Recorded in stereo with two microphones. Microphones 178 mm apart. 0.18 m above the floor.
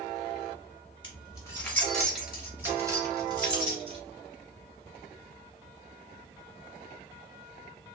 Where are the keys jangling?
30° left (ahead or behind), 1.3 m; by 4.0 s 30° right (ahead or behind), 2 m.